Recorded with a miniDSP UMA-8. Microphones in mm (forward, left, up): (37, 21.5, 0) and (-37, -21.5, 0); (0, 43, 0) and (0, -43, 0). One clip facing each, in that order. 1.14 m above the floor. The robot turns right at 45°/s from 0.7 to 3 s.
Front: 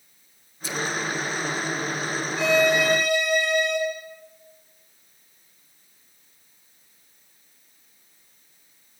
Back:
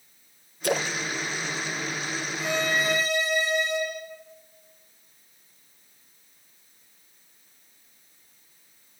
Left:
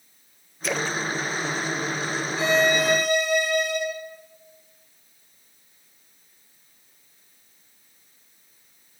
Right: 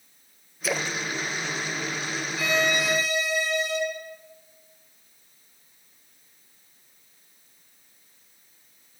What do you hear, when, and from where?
0.6 s a splash: straight behind, 0.5 m; by 1.0 s 165° right, 0.5 m
2.4 s a violin: 30° left, 5 m; by 3.8 s 55° left, 5 m